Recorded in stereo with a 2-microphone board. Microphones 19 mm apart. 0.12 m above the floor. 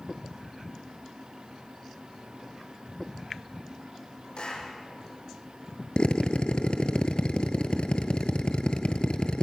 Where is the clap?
60° left (ahead or behind), 5.5 m.